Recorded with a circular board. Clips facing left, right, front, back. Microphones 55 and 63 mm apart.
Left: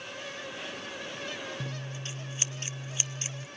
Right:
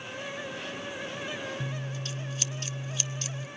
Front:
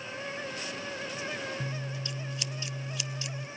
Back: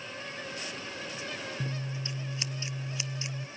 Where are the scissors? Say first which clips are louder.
Right 3 dB, even; 140° left, 0.7 m.